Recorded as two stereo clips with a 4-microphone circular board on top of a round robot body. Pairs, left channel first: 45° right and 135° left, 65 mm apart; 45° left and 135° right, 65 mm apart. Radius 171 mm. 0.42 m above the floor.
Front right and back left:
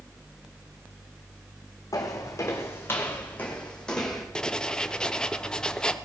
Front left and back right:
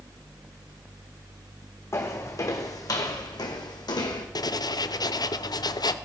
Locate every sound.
1.9 s footsteps: 5° right, 1.9 m; by 4.2 s 40° left, 1.9 m
4.3 s writing: 35° left, 0.8 m